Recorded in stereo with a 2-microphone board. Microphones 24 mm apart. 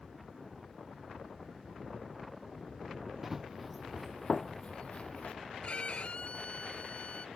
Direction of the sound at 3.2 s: 5° right (ahead or behind).